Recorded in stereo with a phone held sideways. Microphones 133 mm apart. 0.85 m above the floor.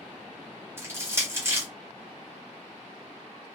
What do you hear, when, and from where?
0.8 s crushing: 20° right (ahead or behind), 1.1 m